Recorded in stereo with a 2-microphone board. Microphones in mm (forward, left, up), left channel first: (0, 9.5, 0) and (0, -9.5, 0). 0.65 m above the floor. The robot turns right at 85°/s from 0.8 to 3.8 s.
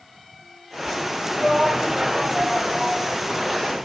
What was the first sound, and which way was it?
A shout, 45° right (ahead or behind).